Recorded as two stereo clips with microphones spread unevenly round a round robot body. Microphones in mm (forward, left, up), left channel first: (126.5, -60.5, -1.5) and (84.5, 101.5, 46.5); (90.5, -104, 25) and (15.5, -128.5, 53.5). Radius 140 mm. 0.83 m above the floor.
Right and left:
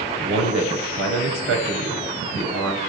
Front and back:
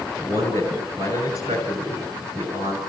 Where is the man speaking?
145° left, 5.5 m.